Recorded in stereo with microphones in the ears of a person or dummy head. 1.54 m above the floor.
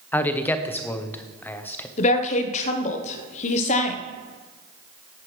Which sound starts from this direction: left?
A woman speaking, at 2.0 s.